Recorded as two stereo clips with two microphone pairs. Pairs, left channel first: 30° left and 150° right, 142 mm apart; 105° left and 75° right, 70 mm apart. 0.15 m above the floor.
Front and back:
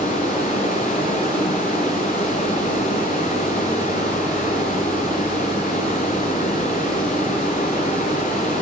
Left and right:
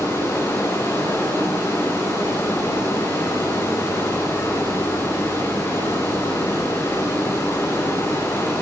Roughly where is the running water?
Ahead left.